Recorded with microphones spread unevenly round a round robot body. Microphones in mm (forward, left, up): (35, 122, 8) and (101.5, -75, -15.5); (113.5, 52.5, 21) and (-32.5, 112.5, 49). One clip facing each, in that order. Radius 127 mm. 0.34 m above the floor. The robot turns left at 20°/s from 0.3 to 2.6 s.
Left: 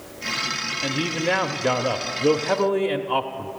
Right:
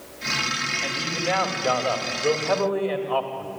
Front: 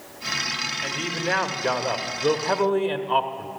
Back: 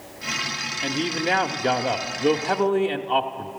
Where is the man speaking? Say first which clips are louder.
Left 5 dB, back 4 dB; 105° left, 1.0 m; by 3.5 s 70° left, 1.0 m.